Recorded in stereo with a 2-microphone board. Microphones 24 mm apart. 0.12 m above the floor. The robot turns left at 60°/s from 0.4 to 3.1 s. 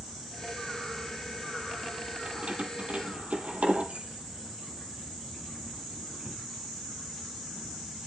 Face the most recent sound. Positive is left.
turn(degrees=-70)  # may be behind; listen again after turning